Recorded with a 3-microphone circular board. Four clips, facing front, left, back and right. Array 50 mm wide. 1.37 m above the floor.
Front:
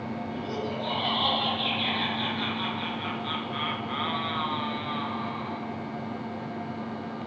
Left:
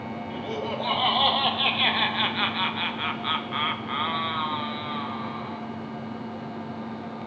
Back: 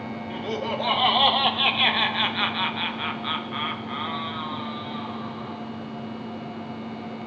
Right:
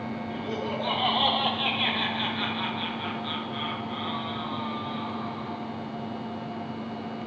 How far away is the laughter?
About 3.5 m.